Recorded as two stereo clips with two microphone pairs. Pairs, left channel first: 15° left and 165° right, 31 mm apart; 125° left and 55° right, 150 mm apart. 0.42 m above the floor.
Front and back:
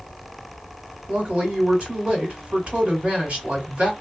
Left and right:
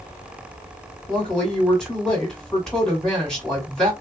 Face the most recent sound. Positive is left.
turn(degrees=-155)